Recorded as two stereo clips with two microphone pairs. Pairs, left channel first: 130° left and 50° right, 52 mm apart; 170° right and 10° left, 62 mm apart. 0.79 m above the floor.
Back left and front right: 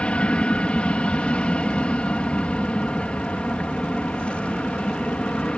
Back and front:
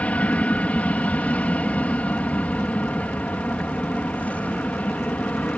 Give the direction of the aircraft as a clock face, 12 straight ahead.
7 o'clock.